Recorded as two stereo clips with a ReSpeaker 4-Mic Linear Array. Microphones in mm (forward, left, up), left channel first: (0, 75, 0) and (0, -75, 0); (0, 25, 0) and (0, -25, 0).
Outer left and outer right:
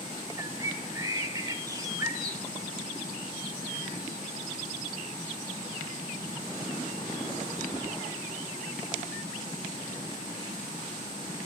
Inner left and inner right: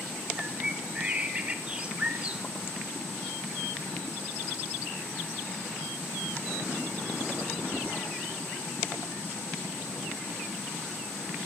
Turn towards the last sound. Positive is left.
turn(degrees=-25)  # may be behind; listen again after turning